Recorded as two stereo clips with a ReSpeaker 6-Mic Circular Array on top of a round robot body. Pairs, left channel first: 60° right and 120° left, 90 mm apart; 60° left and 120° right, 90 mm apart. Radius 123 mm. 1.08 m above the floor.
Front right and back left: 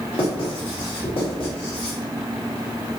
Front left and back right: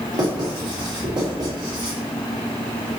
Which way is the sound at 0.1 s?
80° right.